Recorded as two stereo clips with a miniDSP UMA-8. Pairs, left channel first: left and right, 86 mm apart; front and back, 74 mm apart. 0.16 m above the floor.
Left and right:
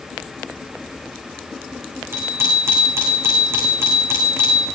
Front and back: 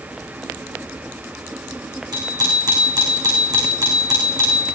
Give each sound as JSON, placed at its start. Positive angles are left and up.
{"t": 2.1, "sound": "a bicycle bell", "azimuth_deg": -150, "distance_m": 9.5}